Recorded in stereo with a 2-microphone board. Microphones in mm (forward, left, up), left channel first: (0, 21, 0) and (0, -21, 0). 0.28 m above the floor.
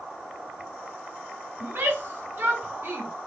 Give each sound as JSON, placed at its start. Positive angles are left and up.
{"t": 1.6, "sound": "a shout", "side_deg": -60, "distance_m": 3.0}